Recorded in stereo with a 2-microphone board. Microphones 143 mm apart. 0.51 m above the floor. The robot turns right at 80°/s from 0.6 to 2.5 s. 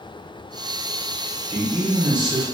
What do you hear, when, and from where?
1.5 s a man speaking: 65° right, 1.2 m; by 2.4 s 10° left, 1.2 m